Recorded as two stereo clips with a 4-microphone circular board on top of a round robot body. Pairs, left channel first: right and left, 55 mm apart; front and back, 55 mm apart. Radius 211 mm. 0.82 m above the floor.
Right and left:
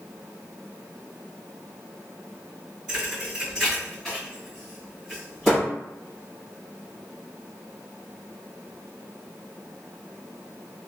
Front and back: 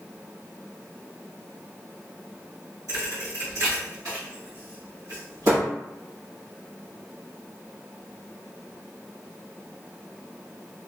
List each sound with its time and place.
2.9 s a thud: 175° right, 1.6 m